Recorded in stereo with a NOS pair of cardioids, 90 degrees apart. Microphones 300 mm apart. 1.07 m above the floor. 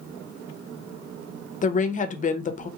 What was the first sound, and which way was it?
A woman speaking, 25° left.